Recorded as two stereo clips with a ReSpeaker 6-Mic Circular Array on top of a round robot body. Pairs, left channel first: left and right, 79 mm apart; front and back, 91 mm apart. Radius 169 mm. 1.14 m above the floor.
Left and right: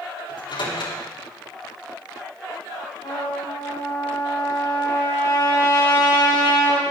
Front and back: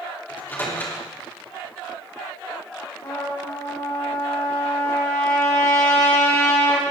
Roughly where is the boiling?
I don't hear boiling.